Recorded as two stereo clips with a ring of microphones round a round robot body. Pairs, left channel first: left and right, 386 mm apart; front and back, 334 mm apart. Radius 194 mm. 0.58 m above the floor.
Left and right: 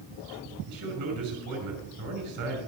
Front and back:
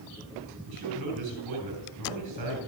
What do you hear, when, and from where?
0.7 s a man speaking: 135° right, 5.5 m